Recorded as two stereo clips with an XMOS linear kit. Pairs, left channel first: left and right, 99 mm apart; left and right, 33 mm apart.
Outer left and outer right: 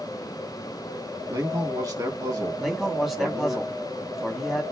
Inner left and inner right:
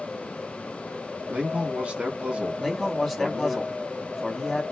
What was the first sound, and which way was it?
A man speaking, 40° right (ahead or behind).